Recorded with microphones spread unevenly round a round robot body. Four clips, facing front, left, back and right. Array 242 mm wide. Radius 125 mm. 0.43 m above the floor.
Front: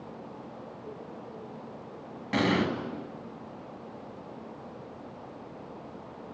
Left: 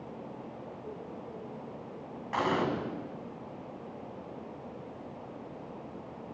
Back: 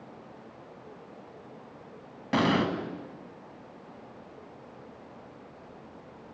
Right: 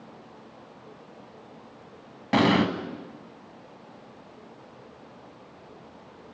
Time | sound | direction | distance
2.3 | an explosion | 105° right | 2.5 m